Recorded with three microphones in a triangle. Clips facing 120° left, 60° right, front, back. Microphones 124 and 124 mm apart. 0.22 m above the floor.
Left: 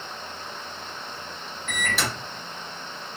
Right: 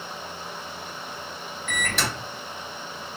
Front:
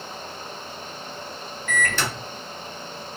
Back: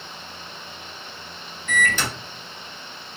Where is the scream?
I don't hear a scream.